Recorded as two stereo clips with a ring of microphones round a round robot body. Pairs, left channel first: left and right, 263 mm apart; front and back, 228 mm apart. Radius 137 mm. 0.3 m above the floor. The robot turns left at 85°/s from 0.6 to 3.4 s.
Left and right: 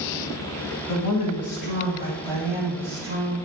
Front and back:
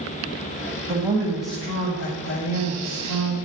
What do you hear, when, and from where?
0.9 s a woman speaking: 120° left, 2 m; by 3.4 s 90° right, 2 m